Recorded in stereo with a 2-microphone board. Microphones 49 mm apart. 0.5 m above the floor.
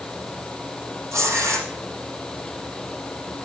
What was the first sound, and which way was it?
Tearing paper, 75° right (ahead or behind).